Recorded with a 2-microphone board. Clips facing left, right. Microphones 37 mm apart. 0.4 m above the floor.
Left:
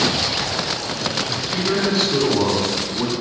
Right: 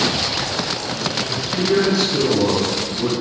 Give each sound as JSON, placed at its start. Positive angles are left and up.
{"t": 1.3, "sound": "a man speaking", "side_deg": 40, "distance_m": 4.0}